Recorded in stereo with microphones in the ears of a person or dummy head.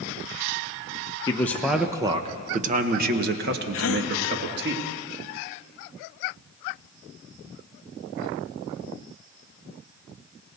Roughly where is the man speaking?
Centre.